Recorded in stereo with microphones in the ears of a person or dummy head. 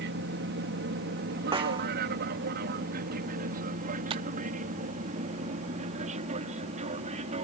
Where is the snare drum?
25° right (ahead or behind).